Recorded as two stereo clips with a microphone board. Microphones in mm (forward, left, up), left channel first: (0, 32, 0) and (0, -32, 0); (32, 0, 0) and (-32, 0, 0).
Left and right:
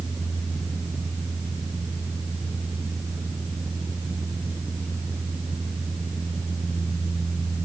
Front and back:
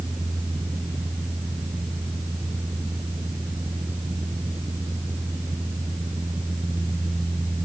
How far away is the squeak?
I don't hear a squeak.